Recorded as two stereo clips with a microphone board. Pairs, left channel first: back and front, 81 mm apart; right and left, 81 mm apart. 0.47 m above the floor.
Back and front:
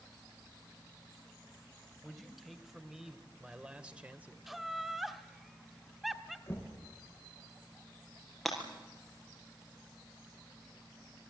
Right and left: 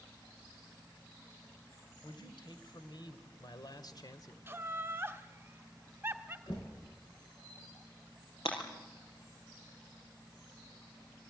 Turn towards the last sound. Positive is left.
turn(degrees=-90)